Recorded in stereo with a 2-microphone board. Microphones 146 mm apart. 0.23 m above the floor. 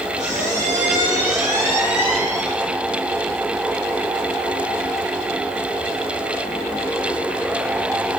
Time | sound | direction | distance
0.2 | a squeak | 50° right (ahead or behind) | 4 m